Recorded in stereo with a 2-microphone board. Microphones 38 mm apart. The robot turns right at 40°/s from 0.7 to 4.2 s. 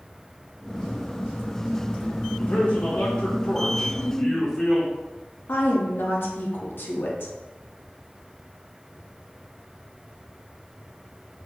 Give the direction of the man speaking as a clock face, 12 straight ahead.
9 o'clock.